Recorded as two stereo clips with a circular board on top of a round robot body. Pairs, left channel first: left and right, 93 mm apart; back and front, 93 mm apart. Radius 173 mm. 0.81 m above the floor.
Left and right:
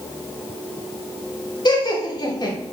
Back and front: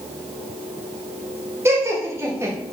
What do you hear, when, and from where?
1.6 s laughter: 60° left, 1.7 m